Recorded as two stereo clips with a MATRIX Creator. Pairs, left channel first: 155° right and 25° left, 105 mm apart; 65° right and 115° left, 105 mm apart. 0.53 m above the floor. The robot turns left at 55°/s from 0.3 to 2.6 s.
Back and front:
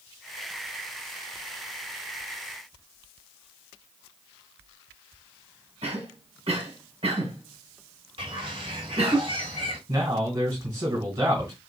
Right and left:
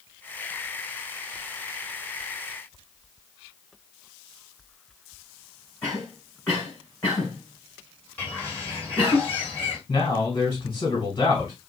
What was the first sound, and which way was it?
A cough, 5° left.